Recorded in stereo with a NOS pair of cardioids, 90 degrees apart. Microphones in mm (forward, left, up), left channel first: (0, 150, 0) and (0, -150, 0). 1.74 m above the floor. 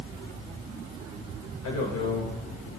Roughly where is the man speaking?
Ahead left.